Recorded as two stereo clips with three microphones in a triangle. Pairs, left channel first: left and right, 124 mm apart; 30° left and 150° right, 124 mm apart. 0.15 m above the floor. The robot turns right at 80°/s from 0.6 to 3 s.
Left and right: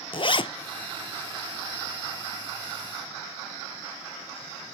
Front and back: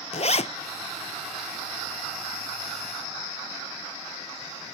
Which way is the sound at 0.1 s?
50° left.